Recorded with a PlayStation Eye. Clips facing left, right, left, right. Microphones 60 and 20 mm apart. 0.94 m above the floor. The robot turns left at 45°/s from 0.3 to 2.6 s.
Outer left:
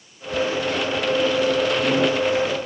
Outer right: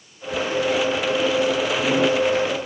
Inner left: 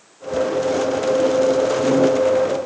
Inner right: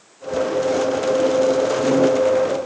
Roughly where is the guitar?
I don't hear a guitar.